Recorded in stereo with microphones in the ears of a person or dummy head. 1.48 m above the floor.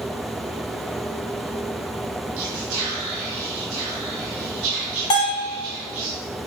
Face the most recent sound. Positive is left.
turn(degrees=20)  # may be behind; listen again after turning